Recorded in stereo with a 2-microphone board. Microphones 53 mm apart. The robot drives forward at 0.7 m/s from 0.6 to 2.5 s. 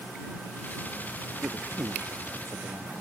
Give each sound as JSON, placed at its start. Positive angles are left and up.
{"t": 1.4, "sound": "a man speaking", "side_deg": -65}